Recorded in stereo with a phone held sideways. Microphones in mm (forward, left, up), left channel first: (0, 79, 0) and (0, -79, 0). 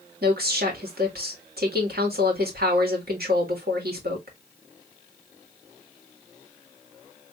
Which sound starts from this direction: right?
A woman speaking, at 0.2 s.